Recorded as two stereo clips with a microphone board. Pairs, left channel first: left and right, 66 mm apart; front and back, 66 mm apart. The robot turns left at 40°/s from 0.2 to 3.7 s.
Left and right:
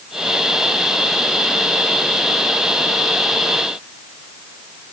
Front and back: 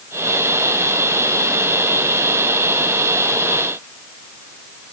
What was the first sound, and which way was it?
Only background noise.